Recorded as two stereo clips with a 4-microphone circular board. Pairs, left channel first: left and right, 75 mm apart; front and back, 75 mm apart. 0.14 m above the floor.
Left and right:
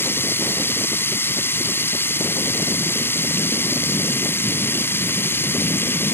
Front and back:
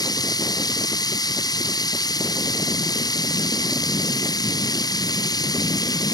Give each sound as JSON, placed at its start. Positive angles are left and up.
{"t": 0.0, "sound": "running water", "azimuth_deg": 30}